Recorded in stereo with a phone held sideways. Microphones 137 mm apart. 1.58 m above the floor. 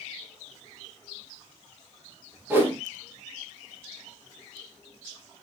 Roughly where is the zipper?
I don't hear a zipper.